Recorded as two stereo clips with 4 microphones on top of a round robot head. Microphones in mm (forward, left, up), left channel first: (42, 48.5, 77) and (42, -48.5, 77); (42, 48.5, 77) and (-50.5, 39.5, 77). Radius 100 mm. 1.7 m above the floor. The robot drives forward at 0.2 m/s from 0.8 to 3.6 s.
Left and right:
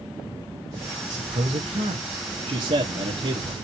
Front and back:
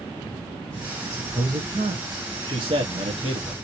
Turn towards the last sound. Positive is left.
turn(degrees=-135)